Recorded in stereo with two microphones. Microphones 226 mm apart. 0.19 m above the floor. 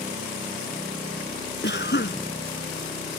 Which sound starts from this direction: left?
A cough, at 1.6 s.